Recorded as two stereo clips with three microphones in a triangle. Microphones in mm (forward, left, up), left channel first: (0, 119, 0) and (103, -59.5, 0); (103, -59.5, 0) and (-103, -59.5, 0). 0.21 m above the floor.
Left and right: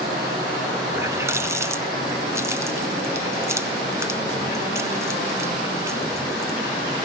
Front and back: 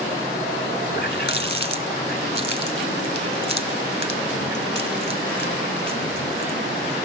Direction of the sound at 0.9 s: 15° left.